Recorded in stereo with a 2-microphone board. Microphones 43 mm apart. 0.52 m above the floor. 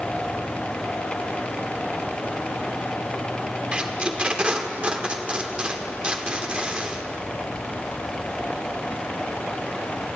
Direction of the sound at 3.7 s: 25° right (ahead or behind).